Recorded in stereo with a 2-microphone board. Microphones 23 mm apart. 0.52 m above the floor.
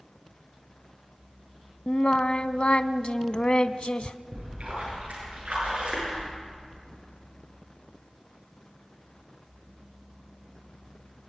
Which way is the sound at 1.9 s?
50° left (ahead or behind).